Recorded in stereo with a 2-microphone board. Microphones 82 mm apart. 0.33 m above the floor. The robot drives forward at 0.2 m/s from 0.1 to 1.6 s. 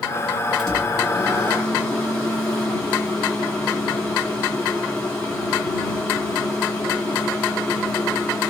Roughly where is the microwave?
Centre.